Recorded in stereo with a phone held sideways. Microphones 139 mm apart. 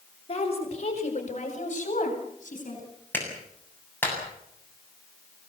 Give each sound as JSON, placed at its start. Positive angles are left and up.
{"t": 0.3, "sound": "a woman speaking", "side_deg": 45, "distance_m": 6.5}
{"t": 3.1, "sound": "a clap", "side_deg": 15, "distance_m": 7.5}